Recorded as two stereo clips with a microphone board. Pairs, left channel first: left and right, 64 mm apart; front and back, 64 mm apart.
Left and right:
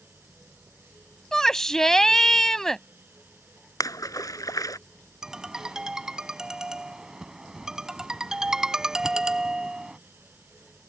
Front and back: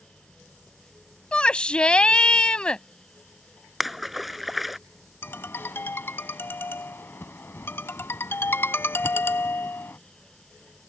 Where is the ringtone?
15° right.